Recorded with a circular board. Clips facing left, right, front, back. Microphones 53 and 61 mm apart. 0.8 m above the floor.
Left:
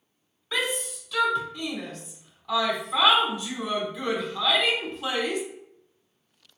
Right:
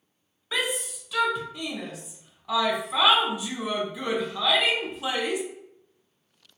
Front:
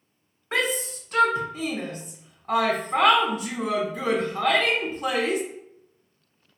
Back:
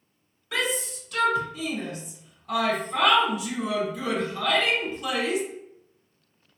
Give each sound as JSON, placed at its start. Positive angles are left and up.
{"t": 0.5, "sound": "a shout", "azimuth_deg": -15, "distance_m": 0.6}